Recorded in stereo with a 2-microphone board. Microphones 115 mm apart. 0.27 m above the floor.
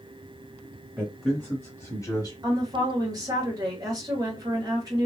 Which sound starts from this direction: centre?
A man speaking, at 1.0 s.